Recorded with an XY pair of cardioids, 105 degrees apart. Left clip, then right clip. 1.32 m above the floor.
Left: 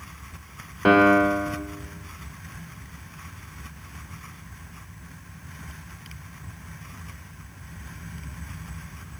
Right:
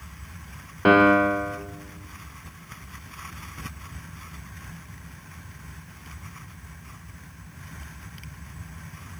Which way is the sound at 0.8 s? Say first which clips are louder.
Even; 5° right.